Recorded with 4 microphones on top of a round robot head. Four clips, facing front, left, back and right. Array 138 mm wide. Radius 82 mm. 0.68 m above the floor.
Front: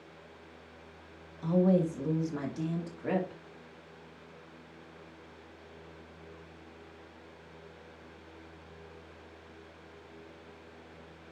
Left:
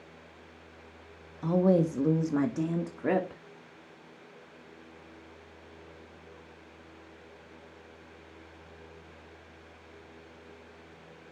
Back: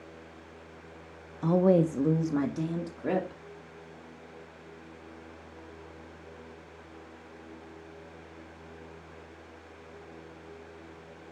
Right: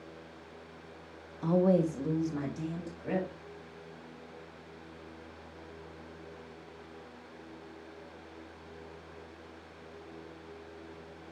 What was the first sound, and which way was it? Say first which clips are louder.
A woman speaking: left 2 dB, back 4 dB; 175° right.